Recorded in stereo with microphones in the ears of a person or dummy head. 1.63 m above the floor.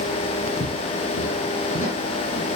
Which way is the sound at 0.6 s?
40° left (ahead or behind).